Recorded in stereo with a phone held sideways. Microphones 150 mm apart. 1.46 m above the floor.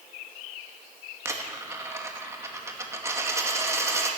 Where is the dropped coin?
20° right (ahead or behind), 0.9 m.